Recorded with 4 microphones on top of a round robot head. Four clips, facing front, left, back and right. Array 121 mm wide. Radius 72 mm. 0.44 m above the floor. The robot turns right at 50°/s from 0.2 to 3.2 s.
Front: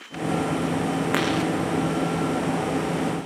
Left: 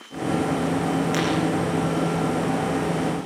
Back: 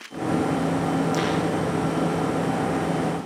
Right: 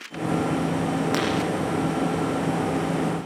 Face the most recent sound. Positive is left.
turn(degrees=80)